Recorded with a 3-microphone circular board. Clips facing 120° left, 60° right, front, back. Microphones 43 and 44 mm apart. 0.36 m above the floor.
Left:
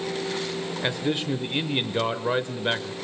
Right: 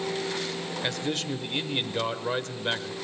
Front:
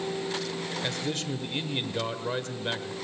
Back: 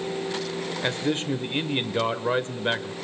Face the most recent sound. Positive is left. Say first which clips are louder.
# left 4 dB, back 8 dB
turn(degrees=175)